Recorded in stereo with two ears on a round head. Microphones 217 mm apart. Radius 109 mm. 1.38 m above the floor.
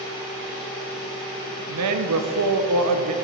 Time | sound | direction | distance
1.7 | a man speaking | 70° right (ahead or behind) | 0.6 m